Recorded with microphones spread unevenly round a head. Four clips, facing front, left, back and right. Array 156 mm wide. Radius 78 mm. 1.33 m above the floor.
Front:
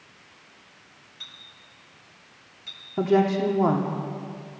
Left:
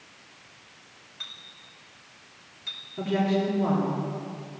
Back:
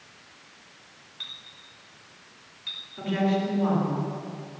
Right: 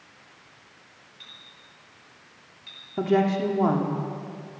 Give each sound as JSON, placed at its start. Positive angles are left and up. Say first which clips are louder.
{"t": 1.2, "sound": "a clink", "louder": "left 4 dB, back 2 dB", "azimuth_deg": 115, "distance_m": 4.5}
{"t": 3.0, "sound": "a woman speaking", "louder": "right 3 dB, front 5 dB", "azimuth_deg": -35, "distance_m": 2.5}